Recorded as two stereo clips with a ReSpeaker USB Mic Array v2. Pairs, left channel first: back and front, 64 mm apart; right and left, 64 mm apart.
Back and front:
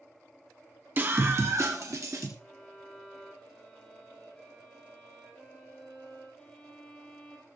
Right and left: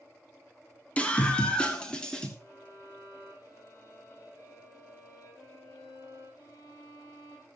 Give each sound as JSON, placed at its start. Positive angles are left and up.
{"t": 1.0, "sound": "a scream", "azimuth_deg": -35, "distance_m": 1.3}
{"t": 2.4, "sound": "a violin", "azimuth_deg": -100, "distance_m": 6.0}